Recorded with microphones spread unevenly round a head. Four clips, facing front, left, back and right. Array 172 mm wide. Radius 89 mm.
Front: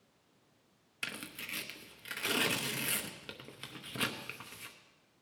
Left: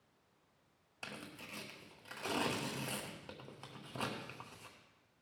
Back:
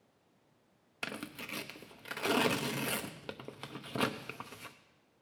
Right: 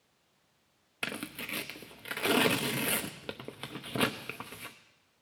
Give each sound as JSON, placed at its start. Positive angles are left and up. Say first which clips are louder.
{"t": 1.0, "sound": "tearing paper", "louder": "right 10 dB, back 3 dB", "azimuth_deg": -95, "distance_m": 0.9}